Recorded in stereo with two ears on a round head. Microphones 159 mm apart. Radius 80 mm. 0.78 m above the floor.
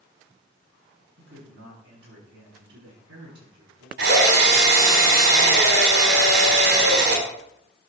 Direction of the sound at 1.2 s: 65° right (ahead or behind).